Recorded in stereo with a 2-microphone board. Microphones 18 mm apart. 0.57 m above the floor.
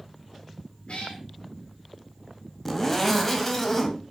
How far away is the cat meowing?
About 4.5 m.